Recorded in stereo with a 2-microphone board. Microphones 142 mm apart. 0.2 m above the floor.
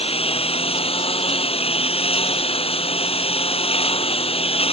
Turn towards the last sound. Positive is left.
turn(degrees=40)  # may be behind; listen again after turning